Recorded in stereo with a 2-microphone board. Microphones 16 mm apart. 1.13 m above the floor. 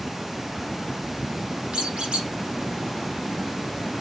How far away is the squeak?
About 0.9 m.